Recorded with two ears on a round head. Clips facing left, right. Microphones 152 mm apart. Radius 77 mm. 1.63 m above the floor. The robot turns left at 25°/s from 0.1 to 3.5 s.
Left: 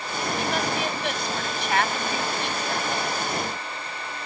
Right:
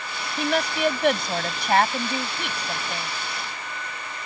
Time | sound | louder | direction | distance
0.4 | a woman speaking | right 5 dB | 110° right | ?